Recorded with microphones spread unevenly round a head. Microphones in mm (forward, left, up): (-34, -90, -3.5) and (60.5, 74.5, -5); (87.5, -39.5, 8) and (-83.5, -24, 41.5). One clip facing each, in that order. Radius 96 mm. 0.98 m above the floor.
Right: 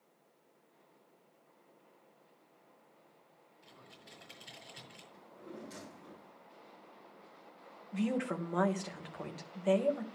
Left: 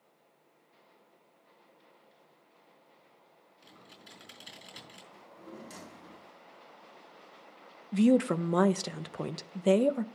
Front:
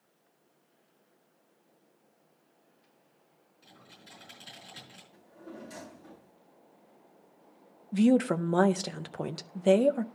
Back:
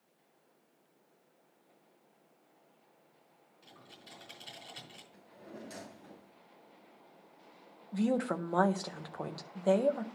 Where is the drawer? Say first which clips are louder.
Left 1 dB, front 4 dB; 90° left, 4 m.